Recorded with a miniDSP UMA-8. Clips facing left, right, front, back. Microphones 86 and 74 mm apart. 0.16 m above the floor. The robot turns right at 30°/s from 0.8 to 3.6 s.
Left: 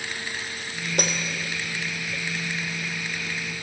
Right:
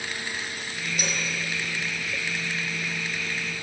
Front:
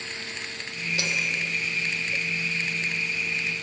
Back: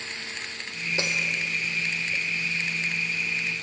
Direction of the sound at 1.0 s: 120° left.